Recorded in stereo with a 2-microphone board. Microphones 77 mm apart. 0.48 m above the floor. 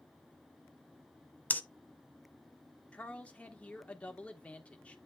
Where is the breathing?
20° left (ahead or behind), 0.6 m.